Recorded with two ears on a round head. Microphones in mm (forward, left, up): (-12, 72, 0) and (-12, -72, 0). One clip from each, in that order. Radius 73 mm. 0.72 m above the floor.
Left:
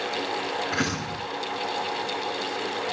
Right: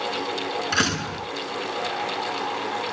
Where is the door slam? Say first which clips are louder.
Right 4 dB; 80° right, 7.5 m.